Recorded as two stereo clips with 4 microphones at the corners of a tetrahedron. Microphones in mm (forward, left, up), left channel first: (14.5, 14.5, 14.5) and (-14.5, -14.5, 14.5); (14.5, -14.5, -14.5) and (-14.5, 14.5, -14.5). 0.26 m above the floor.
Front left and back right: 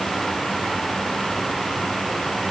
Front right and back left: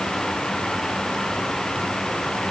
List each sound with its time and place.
Only background noise.